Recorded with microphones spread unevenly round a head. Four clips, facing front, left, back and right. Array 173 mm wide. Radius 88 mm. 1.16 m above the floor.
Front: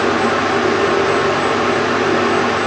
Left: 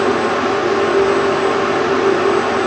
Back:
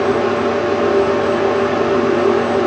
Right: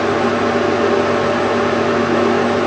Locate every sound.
Only background noise.